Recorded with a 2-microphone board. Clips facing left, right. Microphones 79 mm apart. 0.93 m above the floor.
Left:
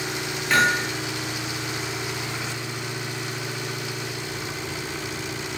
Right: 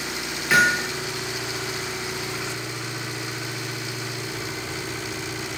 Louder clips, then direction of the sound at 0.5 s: Right 2 dB; 5° right (ahead or behind).